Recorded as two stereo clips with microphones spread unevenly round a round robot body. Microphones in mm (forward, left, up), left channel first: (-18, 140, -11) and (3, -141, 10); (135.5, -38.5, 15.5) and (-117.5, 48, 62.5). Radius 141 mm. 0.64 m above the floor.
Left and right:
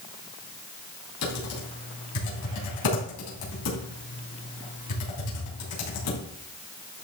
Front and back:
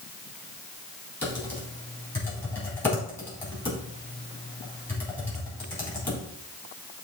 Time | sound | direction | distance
1.2 | typing on a keyboard | 65° left | 3.5 m